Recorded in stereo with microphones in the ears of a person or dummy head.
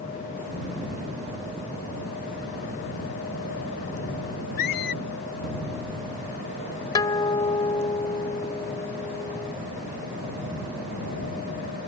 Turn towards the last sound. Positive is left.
turn(degrees=25)  # may be behind; listen again after turning